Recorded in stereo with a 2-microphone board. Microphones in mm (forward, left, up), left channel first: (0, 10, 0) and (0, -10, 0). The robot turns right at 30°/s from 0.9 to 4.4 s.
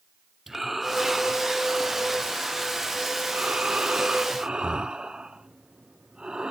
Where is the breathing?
160° right, 0.5 m; by 6.5 s 55° right, 0.5 m.